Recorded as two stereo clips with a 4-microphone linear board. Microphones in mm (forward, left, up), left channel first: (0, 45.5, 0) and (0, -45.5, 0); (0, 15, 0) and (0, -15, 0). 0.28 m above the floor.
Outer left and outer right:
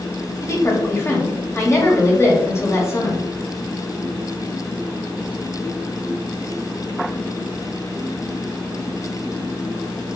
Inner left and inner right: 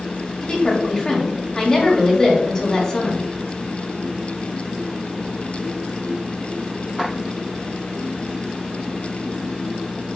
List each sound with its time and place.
0.4 s a woman speaking: 25° left (ahead or behind), 1.2 m